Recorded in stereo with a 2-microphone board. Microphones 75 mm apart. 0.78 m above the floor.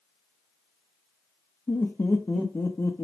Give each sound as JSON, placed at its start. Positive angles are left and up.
{"t": 1.7, "sound": "laughter", "side_deg": 35, "distance_m": 0.5}